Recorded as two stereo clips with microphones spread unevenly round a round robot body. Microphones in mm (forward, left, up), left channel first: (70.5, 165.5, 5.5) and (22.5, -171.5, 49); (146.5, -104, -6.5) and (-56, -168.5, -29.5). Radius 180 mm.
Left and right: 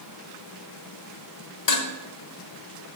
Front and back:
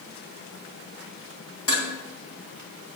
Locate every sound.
1.7 s dishes clattering: 65° left, 1.4 m